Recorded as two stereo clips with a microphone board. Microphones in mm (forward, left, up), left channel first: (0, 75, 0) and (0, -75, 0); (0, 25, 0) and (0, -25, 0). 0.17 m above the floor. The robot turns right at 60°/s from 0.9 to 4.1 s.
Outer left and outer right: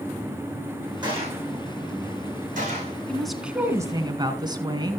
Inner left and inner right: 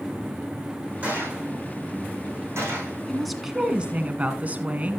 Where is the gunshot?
30° right (ahead or behind), 6.5 m; by 3.0 s 35° right (ahead or behind), 6.5 m.